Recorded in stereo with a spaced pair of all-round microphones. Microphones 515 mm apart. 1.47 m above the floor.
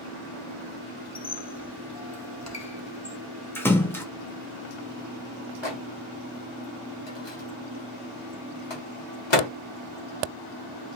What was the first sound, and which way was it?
A squeak, 30° left (ahead or behind).